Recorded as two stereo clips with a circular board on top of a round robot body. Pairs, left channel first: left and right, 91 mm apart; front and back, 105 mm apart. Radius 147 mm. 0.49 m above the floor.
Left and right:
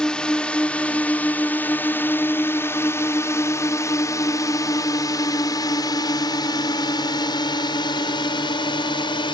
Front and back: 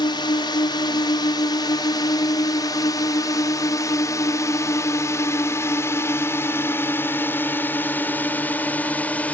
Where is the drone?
10° left; by 9.3 s 75° left.